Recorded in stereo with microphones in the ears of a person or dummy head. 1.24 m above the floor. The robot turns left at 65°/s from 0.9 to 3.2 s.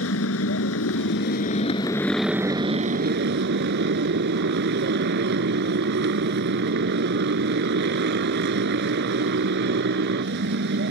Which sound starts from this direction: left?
A motorcycle, at 0.0 s.